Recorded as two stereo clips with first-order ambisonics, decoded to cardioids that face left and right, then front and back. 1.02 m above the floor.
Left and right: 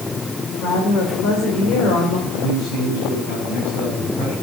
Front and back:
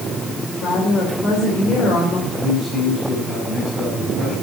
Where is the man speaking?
115° left, 6 m.